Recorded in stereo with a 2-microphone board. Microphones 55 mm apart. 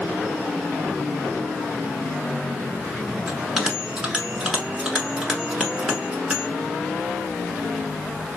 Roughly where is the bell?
Centre.